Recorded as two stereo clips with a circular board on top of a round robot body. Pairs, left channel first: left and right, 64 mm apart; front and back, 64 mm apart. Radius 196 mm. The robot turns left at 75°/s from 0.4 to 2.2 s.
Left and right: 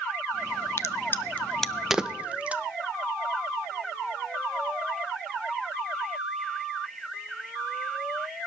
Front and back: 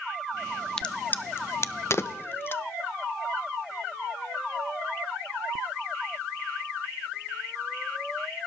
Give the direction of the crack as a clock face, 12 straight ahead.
9 o'clock.